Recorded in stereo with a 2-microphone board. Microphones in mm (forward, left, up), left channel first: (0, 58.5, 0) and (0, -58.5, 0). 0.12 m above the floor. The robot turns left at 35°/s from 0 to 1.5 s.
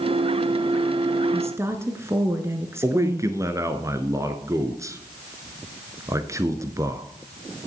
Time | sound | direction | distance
1.3 | a woman speaking | 25° right (ahead or behind) | 1.6 m
2.8 | a man speaking | 30° right (ahead or behind) | 1.3 m